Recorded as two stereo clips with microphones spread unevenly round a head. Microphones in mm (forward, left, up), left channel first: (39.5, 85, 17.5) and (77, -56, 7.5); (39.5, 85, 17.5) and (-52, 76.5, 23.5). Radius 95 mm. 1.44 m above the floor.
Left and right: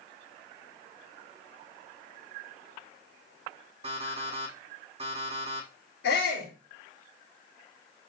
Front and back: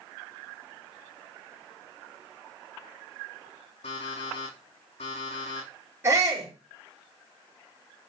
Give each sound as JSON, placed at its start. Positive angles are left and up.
{"t": 3.8, "sound": "an alarm clock", "azimuth_deg": -25, "distance_m": 6.0}
{"t": 6.0, "sound": "a shout", "azimuth_deg": 125, "distance_m": 5.0}